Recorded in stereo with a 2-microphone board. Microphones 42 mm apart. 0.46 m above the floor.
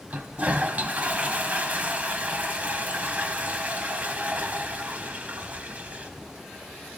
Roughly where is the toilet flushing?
Right.